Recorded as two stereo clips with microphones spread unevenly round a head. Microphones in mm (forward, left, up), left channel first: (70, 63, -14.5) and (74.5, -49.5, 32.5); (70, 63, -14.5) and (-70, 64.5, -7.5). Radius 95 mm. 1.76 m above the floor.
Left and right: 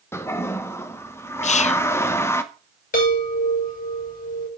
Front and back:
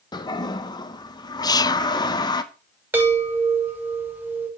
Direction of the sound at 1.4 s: 60° left.